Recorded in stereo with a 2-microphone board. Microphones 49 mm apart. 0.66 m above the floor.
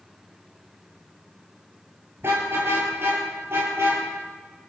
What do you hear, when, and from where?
2.2 s a car horn: 55° right (ahead or behind), 7 m